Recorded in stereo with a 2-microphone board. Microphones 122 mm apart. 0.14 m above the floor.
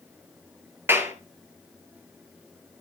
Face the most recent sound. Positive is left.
turn(degrees=-20)  # may be behind; listen again after turning